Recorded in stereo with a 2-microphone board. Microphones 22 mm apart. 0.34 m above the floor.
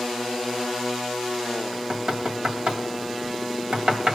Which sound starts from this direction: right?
Knocking, at 1.7 s.